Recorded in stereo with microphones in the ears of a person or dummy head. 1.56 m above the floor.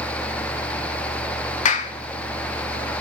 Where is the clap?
45° left (ahead or behind), 0.7 m.